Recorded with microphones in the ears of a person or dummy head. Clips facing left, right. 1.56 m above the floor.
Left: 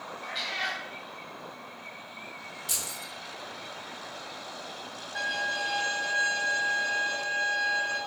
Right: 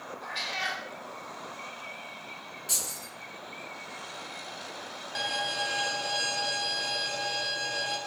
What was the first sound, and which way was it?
A cat meowing, 15° left (ahead or behind).